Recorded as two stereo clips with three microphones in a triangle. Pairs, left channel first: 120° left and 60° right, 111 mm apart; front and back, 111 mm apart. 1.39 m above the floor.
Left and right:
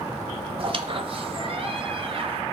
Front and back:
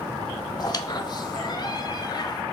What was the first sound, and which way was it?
A squeak, 45° right.